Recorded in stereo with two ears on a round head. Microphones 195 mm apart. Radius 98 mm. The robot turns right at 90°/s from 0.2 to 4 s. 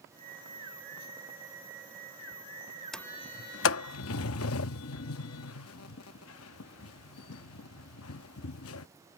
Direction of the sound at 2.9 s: Centre (ahead or behind).